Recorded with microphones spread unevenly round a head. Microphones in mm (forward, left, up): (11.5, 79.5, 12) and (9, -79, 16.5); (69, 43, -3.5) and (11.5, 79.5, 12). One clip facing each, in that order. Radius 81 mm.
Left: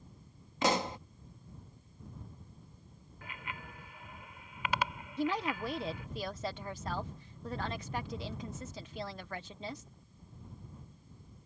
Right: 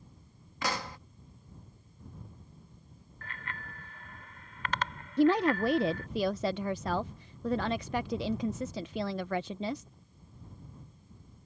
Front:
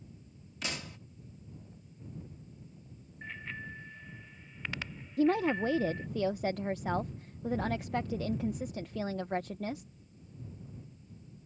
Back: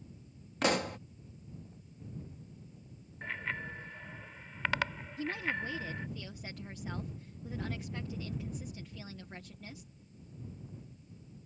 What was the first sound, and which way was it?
A pop, 160° left.